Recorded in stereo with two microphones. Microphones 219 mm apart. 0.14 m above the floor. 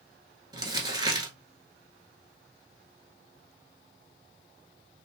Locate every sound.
0.5 s crumpling: 20° right (ahead or behind), 0.9 m